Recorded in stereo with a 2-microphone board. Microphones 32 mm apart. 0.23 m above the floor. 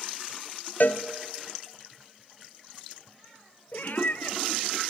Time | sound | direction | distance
0.8 | a cowbell | 70° left (ahead or behind) | 1.1 m
3.7 | a cat meowing | 65° left (ahead or behind) | 1.0 m